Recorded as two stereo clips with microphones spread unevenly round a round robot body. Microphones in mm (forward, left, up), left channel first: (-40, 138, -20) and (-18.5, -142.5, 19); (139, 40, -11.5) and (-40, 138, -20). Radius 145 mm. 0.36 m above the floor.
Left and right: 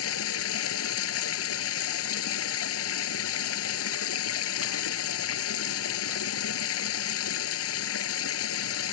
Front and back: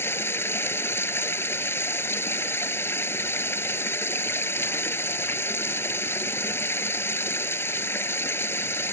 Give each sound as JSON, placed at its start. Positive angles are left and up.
{"t": 0.0, "sound": "running water", "azimuth_deg": 50}